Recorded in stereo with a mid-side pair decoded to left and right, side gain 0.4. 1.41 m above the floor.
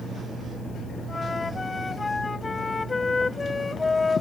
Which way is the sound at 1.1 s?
30° left.